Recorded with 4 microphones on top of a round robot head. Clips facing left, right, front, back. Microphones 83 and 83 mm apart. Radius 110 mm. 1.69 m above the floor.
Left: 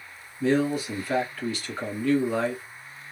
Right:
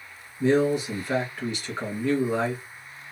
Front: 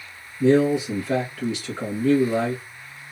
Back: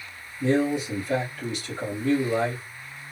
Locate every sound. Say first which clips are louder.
0.4 s a man speaking: right 2 dB, front 5 dB; 20° right, 1.5 m